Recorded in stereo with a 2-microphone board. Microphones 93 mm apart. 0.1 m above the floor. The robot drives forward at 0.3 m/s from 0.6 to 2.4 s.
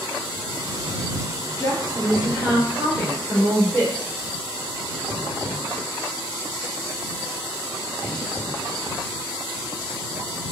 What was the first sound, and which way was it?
A woman speaking, 20° left (ahead or behind).